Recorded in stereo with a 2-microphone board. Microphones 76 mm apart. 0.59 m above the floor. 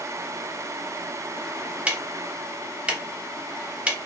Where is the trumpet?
I don't hear a trumpet.